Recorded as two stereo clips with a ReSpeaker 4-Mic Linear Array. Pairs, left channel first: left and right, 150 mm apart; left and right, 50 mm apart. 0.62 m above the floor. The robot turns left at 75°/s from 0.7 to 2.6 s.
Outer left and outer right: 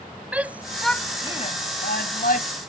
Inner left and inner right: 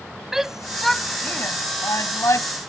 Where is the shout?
10° right (ahead or behind); by 2.5 s 55° left (ahead or behind).